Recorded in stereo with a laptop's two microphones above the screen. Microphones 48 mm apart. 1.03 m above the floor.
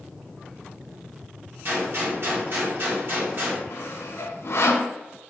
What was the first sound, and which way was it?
A gunshot, 50° right (ahead or behind).